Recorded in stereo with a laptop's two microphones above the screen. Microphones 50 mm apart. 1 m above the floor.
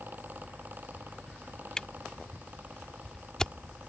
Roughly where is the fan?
Right.